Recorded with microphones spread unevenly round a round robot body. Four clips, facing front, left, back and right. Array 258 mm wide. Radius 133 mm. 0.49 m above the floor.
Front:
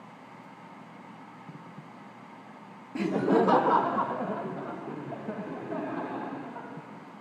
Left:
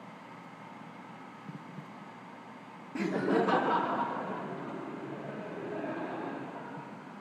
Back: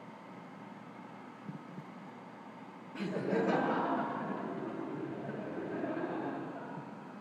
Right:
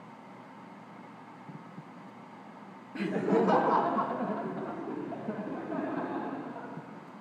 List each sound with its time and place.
3.0 s laughter: 15° left, 0.9 m; by 6.7 s 25° right, 5 m